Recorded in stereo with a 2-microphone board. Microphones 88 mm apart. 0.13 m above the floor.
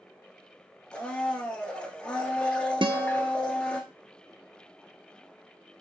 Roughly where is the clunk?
No clunk in this recording.